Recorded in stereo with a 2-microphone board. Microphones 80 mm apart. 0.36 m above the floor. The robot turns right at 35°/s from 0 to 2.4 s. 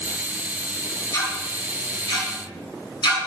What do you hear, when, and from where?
1.1 s ticking: 40° left (ahead or behind), 3.5 m; by 3.3 s 75° left (ahead or behind), 3.5 m